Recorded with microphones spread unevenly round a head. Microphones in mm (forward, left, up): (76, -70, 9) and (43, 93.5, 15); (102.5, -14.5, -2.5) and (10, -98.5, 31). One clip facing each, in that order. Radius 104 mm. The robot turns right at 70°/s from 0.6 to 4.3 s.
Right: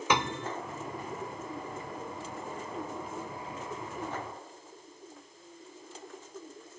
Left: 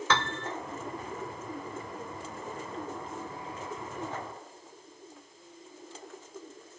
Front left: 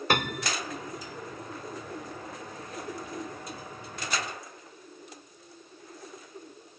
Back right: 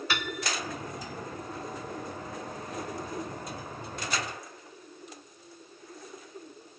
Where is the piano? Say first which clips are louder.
Right 2 dB, front left 6 dB; 5° right.